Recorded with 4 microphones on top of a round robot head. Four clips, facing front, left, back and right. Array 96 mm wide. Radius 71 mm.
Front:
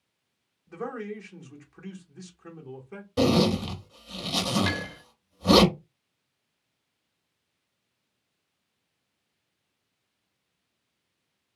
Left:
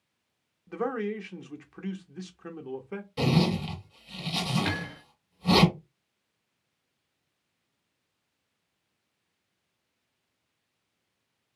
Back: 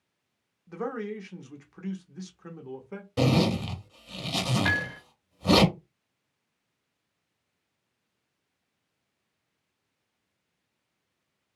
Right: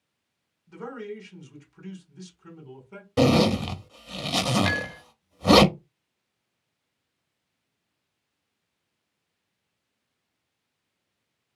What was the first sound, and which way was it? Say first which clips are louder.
A man speaking: left 6 dB, back 2 dB; 110° left.